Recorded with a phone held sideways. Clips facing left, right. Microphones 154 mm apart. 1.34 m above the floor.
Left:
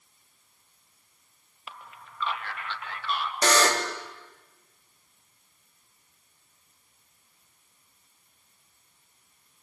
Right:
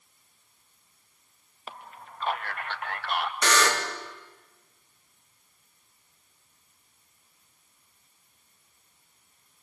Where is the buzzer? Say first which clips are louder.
Left 4 dB; 35° left (ahead or behind), 3 m.